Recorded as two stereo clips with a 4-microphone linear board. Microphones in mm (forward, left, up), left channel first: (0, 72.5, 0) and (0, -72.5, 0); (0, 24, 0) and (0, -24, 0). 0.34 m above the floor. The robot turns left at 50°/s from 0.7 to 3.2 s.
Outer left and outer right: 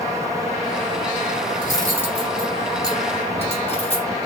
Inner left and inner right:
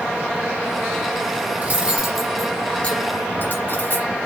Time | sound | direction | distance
1.6 | cutlery clinking | 35° right (ahead or behind) | 3.5 m